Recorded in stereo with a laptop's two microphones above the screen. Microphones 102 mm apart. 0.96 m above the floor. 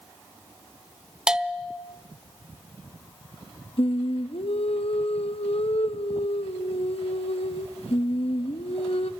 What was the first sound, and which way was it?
A bell, 10° right (ahead or behind).